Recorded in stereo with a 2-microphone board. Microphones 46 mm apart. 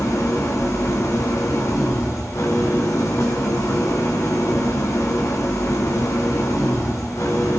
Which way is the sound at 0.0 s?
85° left.